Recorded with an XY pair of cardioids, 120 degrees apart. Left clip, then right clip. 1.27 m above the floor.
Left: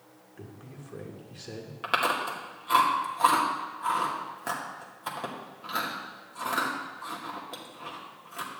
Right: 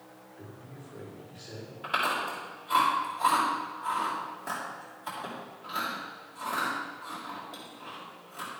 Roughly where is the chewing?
Left.